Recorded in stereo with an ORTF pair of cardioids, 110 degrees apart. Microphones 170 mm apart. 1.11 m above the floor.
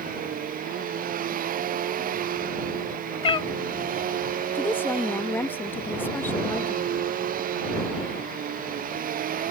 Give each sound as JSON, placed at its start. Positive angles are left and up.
{"t": 0.0, "sound": "a machine running", "azimuth_deg": -55}
{"t": 3.2, "sound": "a cat meowing", "azimuth_deg": 35}
{"t": 4.5, "sound": "a woman speaking", "azimuth_deg": 10}